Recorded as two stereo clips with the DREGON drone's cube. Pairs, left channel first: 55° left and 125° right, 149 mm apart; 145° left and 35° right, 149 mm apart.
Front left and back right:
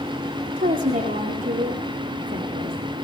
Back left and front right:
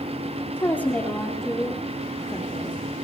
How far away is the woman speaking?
About 4 m.